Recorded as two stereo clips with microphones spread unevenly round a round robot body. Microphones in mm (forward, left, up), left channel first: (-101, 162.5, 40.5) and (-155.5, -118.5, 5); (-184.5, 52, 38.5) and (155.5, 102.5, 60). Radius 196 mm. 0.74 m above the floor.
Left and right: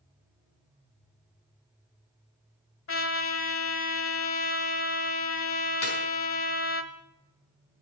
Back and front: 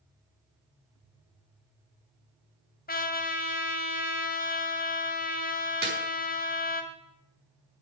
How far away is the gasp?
No gasp in this recording.